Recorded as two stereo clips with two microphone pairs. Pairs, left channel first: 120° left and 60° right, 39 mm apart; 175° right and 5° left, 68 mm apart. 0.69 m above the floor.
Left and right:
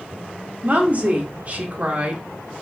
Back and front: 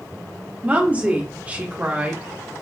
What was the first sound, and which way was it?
A woman speaking, 50° right.